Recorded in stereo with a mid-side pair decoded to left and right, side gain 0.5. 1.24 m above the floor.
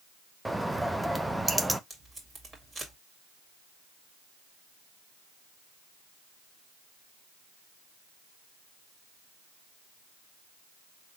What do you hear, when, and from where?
0.5 s a bird: 5° right, 0.6 m
1.9 s tape being pulled: 30° right, 2.5 m